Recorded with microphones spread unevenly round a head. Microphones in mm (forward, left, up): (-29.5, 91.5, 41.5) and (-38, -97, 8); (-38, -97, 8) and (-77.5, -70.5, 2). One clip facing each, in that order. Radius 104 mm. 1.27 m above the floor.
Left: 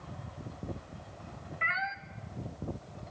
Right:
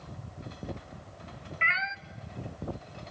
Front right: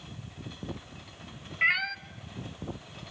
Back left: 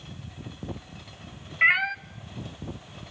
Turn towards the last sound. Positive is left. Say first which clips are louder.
# even, back left 5 dB
turn(degrees=-150)